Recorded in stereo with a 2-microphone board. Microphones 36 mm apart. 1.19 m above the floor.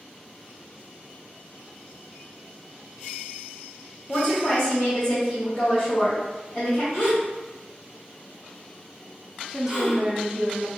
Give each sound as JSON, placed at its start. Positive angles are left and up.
{"t": 4.1, "sound": "a woman speaking", "side_deg": 30, "distance_m": 1.0}
{"t": 6.9, "sound": "a gasp", "side_deg": 60, "distance_m": 1.4}
{"t": 9.5, "sound": "a woman speaking", "side_deg": -20, "distance_m": 0.6}